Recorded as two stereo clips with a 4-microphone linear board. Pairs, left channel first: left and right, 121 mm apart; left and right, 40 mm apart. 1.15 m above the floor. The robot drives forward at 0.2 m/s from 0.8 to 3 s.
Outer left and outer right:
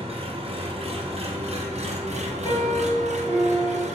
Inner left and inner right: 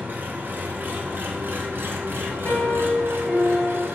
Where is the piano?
30° left (ahead or behind), 1.2 m.